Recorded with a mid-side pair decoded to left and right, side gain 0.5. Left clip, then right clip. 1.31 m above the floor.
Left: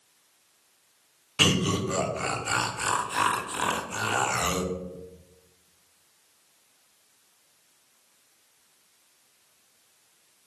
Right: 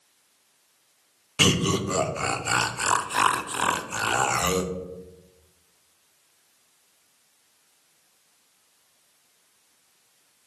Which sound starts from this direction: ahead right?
Laughter, at 1.4 s.